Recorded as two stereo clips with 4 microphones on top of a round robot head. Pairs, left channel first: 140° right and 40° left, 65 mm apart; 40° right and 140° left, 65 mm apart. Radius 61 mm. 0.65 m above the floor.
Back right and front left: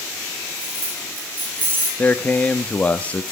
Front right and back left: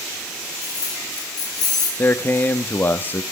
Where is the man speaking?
85° right, 0.9 m.